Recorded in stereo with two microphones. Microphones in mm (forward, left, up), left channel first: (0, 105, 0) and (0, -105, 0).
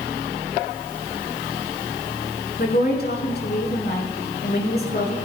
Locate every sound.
2.6 s a woman speaking: 50° left (ahead or behind), 5 m